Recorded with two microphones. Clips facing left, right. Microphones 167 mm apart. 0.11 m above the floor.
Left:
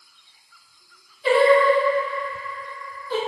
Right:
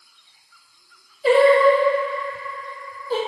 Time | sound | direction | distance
1.2 | singing | 40° right (ahead or behind) | 1.2 m